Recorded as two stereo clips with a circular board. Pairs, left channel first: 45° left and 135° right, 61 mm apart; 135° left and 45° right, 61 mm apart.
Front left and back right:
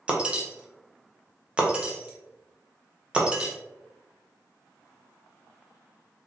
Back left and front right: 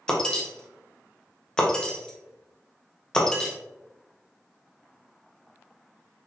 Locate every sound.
0.1 s breaking glass: 175° right, 0.6 m